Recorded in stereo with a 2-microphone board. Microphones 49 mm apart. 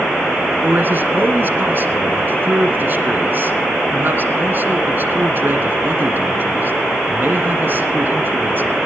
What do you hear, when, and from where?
0.6 s a man speaking: 45° right (ahead or behind), 1.9 m